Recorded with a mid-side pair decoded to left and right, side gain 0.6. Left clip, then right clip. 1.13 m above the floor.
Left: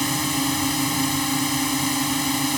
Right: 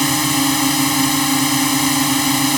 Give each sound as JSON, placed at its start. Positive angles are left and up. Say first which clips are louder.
{"t": 0.0, "sound": "a drone", "louder": "right 7 dB", "azimuth_deg": -35}